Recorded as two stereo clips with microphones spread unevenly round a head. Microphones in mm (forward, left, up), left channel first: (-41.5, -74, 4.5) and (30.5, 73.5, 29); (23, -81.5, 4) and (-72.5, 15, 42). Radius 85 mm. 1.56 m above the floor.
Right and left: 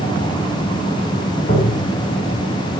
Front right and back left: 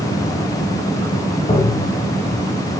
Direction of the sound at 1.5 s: 100° right.